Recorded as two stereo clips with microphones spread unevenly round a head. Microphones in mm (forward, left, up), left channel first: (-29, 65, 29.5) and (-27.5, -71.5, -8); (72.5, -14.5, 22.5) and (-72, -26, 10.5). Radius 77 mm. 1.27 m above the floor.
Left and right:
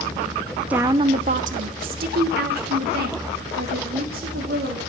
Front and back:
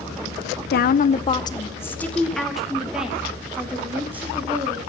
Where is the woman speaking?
10° right, 0.6 m; by 4.8 s 100° right, 3 m.